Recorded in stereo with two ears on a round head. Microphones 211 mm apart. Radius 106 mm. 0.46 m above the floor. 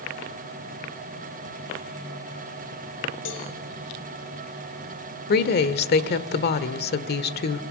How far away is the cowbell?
About 4 m.